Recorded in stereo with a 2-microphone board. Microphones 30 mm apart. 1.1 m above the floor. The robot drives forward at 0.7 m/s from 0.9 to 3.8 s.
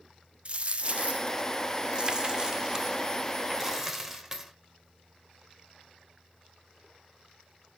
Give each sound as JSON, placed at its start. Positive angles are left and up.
{"t": 0.5, "sound": "a dropped coin", "side_deg": -40, "distance_m": 0.7}